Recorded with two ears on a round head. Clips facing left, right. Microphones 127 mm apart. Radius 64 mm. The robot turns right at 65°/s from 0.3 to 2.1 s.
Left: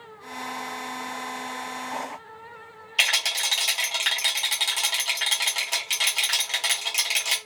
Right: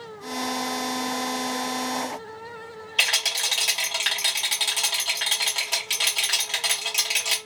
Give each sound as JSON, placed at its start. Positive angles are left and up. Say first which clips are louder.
{"t": 3.0, "sound": "a rattle", "louder": "left 1 dB", "side_deg": 5, "distance_m": 1.0}